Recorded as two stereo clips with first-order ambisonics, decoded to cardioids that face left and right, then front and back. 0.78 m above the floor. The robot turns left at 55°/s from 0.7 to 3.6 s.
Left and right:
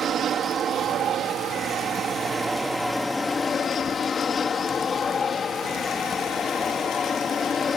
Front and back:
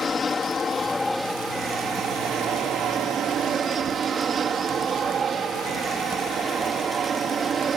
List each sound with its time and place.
0.0 s an aircraft: 60° right; by 7.8 s 140° left